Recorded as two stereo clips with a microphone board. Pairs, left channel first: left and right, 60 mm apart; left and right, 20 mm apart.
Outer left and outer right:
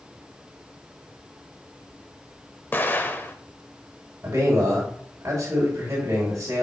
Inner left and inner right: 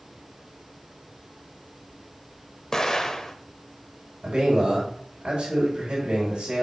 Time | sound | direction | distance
2.7 | an explosion | 35° left (ahead or behind) | 0.6 m
4.2 | a man speaking | 50° right (ahead or behind) | 2.5 m